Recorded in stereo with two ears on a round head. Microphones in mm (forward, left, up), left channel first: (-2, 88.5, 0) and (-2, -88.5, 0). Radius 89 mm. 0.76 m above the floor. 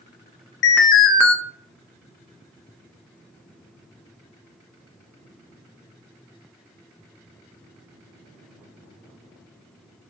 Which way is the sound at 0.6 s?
60° left (ahead or behind).